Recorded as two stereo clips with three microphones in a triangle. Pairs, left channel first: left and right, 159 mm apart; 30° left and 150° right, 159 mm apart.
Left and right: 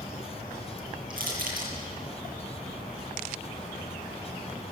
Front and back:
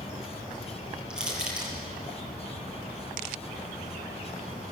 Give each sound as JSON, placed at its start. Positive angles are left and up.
{"t": 0.0, "sound": "an insect", "azimuth_deg": 25, "distance_m": 7.0}
{"t": 1.1, "sound": "crushing", "azimuth_deg": -65, "distance_m": 8.0}